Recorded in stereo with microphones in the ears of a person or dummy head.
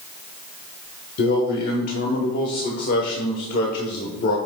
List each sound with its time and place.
1.2 s a man speaking: 55° left (ahead or behind), 1.1 m